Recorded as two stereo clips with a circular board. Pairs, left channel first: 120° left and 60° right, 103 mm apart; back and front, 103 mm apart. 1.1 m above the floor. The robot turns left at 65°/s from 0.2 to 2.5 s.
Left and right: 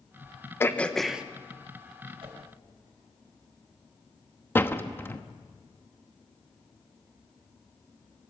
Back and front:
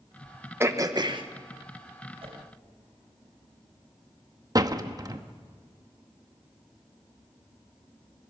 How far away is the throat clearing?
About 1.1 m.